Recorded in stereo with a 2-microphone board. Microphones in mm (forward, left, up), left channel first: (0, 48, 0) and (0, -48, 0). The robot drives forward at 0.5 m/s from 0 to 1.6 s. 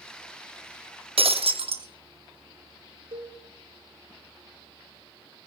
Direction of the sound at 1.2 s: 80° right.